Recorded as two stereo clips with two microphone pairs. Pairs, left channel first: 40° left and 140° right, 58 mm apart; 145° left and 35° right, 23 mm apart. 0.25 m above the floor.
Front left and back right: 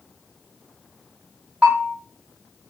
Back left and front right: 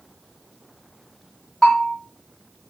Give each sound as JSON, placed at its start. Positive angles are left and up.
{"t": 1.6, "sound": "a bell", "azimuth_deg": -165, "distance_m": 1.2}